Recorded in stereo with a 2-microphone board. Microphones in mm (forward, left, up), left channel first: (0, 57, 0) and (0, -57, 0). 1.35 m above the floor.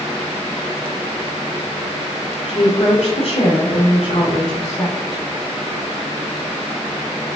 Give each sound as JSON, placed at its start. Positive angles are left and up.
{"t": 2.5, "sound": "a woman speaking", "side_deg": 55, "distance_m": 1.3}